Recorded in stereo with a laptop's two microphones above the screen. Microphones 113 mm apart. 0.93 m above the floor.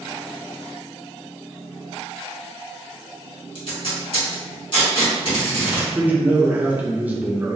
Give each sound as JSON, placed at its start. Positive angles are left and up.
{"t": 3.5, "sound": "tape being pulled", "side_deg": 50, "distance_m": 1.7}
{"t": 6.0, "sound": "a man speaking", "side_deg": -15, "distance_m": 0.7}